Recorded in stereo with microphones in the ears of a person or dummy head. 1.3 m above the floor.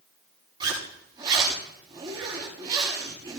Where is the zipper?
25° right (ahead or behind), 7 m.